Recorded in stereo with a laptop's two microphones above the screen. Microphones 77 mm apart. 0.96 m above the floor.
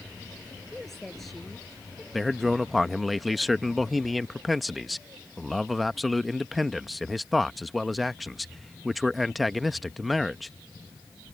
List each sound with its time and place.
0.7 s a woman speaking: 5° left (ahead or behind); by 2.0 s centre (ahead or behind)
2.1 s a man speaking: centre (ahead or behind)